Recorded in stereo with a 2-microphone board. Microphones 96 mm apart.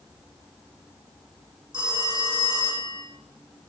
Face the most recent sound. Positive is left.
turn(degrees=-60)  # may be behind; listen again after turning